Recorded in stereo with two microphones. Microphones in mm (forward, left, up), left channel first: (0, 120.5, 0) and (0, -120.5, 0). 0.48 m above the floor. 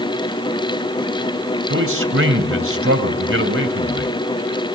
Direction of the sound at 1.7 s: 60° right (ahead or behind).